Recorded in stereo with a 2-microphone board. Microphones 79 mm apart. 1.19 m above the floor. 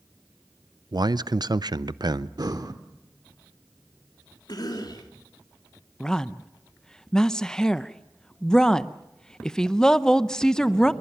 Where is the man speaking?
60° right (ahead or behind), 0.6 m.